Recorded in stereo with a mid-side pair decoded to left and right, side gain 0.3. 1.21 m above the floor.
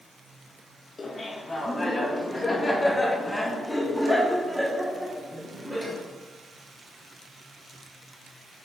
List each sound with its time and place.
1.0 s laughter: 50° left, 2.5 m; by 6.0 s 25° right, 1.9 m